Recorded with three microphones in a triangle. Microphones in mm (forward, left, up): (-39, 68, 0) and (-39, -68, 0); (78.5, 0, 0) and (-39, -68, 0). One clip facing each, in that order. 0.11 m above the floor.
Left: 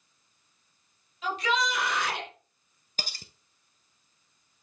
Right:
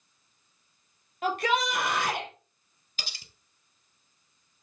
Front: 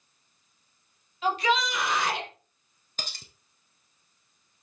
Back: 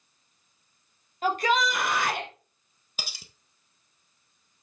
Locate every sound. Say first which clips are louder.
1.2 s a shout: right 2 dB, back 1 dB; 115° right, 3 m; by 2.3 s 120° right, 3.5 m
3.0 s cutlery clinking: left 4 dB, front 1 dB; 130° left, 1.3 m